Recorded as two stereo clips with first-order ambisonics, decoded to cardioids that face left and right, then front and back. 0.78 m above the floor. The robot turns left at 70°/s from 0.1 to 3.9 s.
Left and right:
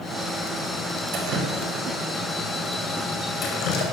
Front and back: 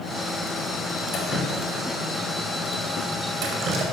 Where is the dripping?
50° right, 4.5 m; by 3.8 s 120° left, 4.5 m.